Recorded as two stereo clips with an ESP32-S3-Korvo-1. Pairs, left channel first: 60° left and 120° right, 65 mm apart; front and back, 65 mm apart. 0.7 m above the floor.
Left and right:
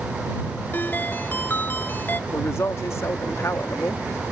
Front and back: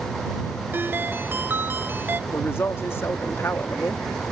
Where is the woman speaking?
35° left.